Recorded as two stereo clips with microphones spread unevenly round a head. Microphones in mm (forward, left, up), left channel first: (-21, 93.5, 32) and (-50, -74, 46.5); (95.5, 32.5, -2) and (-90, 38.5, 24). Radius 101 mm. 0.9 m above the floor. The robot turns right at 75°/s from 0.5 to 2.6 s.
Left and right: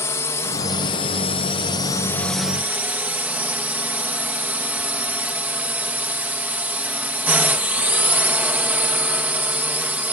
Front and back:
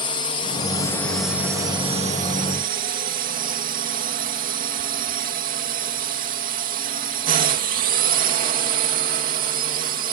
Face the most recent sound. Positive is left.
turn(degrees=180)